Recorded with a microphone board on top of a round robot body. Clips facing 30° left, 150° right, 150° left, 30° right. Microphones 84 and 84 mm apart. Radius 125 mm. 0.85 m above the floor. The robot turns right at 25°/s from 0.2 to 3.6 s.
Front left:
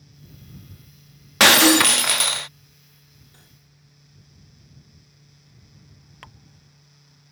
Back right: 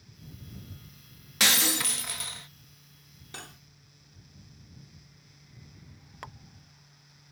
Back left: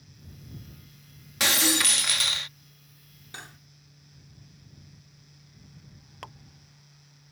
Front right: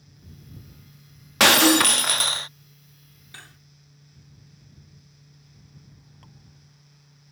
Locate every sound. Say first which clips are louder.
1.4 s breaking glass: front left 15 dB, front right 10 dB; straight ahead; by 2.5 s 25° left
3.3 s cutlery clinking: back right 10 dB, back left 3 dB; 140° right; by 3.6 s 135° right
6.2 s dripping: back right 3 dB, back left 13 dB; 140° left